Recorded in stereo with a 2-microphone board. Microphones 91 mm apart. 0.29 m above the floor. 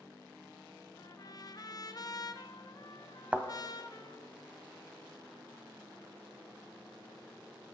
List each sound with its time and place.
1.0 s a trumpet: 45° left (ahead or behind), 0.7 m
3.3 s a thud: 15° right (ahead or behind), 0.9 m